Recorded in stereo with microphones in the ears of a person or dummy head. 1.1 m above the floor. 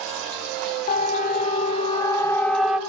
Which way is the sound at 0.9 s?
45° left (ahead or behind).